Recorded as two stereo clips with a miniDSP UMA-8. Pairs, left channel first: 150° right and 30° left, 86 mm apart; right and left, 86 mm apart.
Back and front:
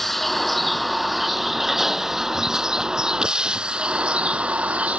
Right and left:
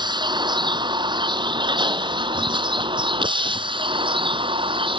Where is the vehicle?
120° left; by 5.0 s 105° left.